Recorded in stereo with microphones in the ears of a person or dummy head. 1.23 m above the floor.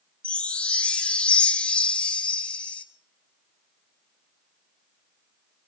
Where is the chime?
5° left (ahead or behind), 1.1 m.